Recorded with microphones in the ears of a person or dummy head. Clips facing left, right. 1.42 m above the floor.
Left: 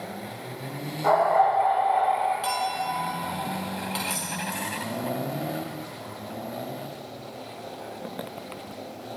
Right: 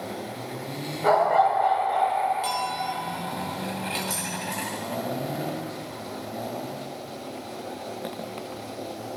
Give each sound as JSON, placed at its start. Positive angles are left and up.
{"t": 1.0, "sound": "a dog barking", "side_deg": -35, "distance_m": 1.9}
{"t": 2.4, "sound": "a clink", "side_deg": 5, "distance_m": 1.3}
{"t": 4.1, "sound": "keys jangling", "side_deg": -15, "distance_m": 2.5}